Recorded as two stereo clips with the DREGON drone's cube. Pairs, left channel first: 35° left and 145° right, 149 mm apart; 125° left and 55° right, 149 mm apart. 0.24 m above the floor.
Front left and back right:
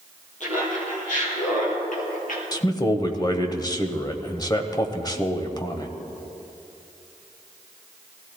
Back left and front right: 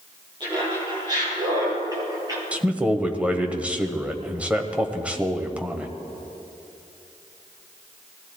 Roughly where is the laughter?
Ahead.